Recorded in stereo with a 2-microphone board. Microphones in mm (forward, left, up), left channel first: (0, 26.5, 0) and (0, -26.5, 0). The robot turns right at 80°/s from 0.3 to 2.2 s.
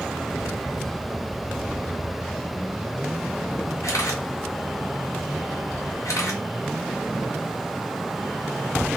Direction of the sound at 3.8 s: 70° left (ahead or behind).